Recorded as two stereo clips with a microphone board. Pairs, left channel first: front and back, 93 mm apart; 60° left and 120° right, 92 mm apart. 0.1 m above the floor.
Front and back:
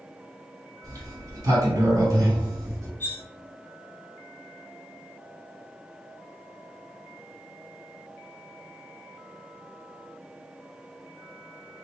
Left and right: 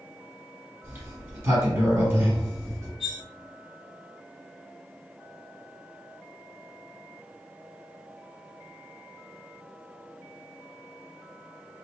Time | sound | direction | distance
0.8 | a sliding door | 160° right | 1.7 m
3.0 | cutlery clinking | 30° right | 0.8 m